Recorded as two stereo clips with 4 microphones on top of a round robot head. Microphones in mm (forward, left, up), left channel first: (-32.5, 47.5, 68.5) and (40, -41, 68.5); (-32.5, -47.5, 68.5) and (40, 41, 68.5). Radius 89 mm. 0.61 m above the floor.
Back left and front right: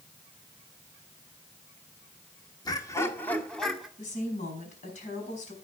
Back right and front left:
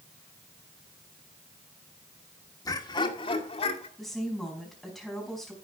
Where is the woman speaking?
140° left, 5 m.